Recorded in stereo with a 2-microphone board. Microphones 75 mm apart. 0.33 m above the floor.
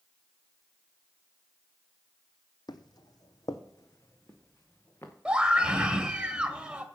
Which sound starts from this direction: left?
Footsteps, at 2.7 s.